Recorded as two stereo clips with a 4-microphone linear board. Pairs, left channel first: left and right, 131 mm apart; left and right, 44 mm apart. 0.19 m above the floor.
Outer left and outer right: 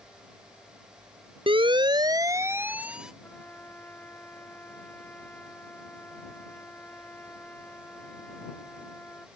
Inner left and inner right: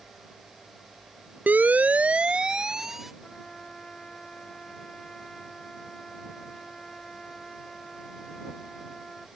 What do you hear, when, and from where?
1.5 s a siren: 45° right (ahead or behind); by 3.1 s 5° right (ahead or behind)
3.2 s a trumpet: 15° left (ahead or behind)